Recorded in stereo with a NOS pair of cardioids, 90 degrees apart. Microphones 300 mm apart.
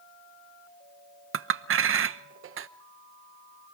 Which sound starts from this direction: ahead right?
A clink, at 1.3 s.